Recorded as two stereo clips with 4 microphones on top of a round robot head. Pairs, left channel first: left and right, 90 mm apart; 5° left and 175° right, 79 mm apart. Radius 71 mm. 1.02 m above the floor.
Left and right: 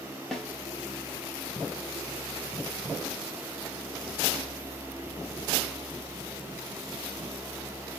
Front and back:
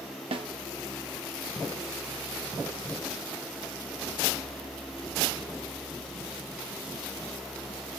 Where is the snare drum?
175° left, 0.7 m.